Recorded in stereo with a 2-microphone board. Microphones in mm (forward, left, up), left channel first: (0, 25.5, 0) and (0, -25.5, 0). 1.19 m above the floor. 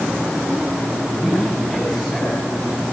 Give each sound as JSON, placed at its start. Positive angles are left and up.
{"t": 1.1, "sound": "a man speaking", "side_deg": 15, "distance_m": 8.0}